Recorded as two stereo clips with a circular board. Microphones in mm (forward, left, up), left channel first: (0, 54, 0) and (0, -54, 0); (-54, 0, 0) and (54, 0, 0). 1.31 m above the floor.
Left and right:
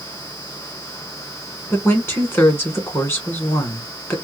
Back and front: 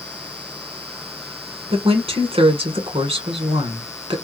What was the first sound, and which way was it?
A woman speaking, 25° left.